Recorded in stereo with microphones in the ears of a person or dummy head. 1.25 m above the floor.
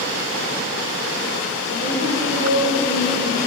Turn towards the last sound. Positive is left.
turn(degrees=-80)